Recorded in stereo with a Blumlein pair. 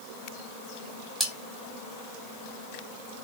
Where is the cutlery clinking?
Straight ahead, 1.0 m.